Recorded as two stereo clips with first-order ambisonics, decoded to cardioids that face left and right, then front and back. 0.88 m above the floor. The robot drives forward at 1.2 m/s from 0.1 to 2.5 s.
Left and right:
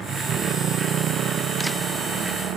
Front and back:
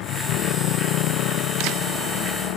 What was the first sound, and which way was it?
A motorcycle, 30° right.